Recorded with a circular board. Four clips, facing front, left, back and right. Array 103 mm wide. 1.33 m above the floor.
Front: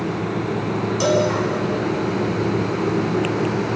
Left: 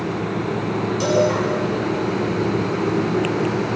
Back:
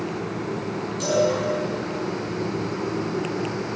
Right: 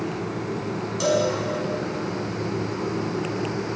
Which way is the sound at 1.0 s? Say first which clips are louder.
Left 3 dB, front 2 dB; 5° left.